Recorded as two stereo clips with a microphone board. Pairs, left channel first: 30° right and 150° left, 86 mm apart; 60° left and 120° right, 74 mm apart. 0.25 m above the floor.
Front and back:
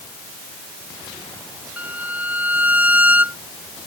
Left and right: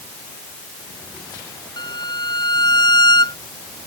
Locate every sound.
1.8 s a violin: 80° left